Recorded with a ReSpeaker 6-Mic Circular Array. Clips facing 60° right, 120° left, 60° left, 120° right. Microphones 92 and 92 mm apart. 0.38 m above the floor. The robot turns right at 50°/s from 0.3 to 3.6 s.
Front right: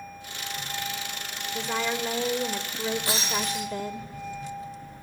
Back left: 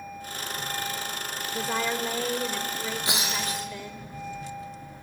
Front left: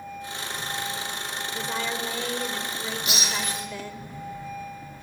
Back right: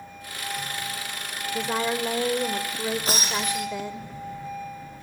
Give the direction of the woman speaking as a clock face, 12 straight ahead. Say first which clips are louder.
Even, back right 5 dB; 6 o'clock.